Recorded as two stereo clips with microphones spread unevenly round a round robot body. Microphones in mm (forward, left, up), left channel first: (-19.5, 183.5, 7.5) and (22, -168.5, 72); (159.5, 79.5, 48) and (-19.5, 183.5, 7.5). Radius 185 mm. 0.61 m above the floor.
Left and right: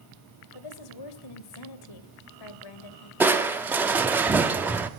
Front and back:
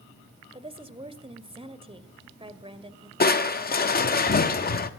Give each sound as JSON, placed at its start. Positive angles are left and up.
{"t": 0.5, "sound": "a woman speaking", "azimuth_deg": 90, "distance_m": 2.5}
{"t": 3.2, "sound": "crushing", "azimuth_deg": 10, "distance_m": 1.4}